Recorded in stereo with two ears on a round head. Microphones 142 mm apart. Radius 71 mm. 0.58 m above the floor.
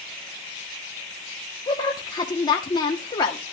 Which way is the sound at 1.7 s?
25° left (ahead or behind).